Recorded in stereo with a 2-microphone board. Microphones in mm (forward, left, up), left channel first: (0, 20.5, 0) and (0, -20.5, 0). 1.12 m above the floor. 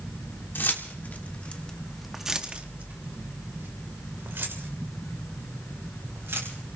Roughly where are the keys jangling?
Left.